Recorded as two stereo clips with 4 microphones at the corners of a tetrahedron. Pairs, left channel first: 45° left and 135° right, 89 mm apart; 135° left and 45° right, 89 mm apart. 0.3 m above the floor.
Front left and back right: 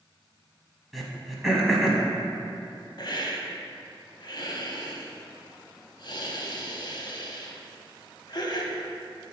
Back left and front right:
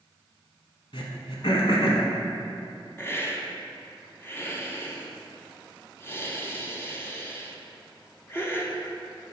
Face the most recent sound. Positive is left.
turn(degrees=75)